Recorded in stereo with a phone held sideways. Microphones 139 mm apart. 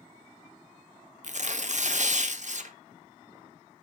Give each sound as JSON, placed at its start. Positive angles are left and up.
{"t": 1.2, "sound": "tearing paper", "side_deg": -60, "distance_m": 0.7}